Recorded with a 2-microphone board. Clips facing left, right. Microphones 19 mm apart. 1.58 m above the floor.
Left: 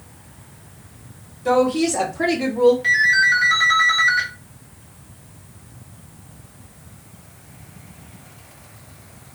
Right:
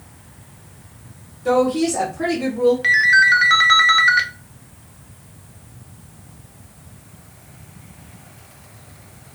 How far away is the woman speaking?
About 1.1 m.